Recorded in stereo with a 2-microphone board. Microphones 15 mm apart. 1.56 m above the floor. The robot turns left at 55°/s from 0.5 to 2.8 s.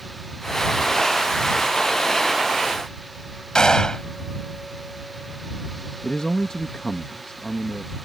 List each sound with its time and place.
3.5 s a gunshot: 50° left (ahead or behind)
6.0 s a man speaking: 65° left (ahead or behind)